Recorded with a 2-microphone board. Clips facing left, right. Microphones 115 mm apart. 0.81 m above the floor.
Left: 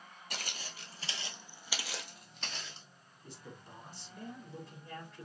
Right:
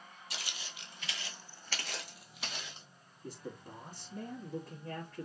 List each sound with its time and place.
0.3 s footsteps: 50° left (ahead or behind), 1.2 m; by 2.9 s 15° right (ahead or behind), 1.5 m
3.2 s a man speaking: 45° right (ahead or behind), 1.8 m